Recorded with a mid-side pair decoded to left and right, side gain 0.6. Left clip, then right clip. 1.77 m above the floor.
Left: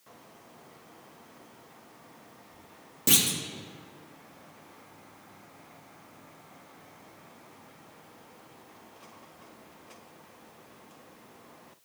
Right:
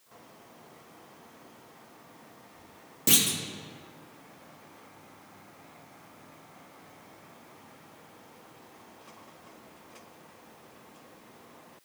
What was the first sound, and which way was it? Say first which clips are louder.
A clunk: even; straight ahead.